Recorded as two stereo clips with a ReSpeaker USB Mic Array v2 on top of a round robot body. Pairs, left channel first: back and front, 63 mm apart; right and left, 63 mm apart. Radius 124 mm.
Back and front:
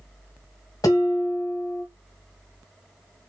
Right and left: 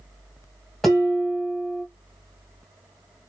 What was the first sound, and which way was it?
Dishes clattering, 175° right.